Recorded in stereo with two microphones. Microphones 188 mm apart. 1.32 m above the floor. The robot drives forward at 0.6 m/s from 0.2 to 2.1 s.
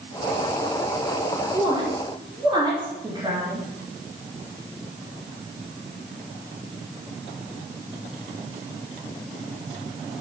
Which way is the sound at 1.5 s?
25° right (ahead or behind).